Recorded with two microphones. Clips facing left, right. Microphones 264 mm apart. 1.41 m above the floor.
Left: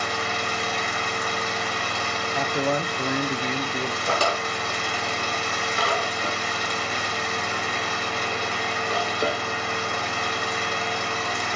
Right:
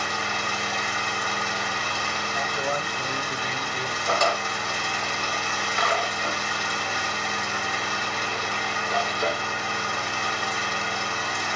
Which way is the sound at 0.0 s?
70° left (ahead or behind).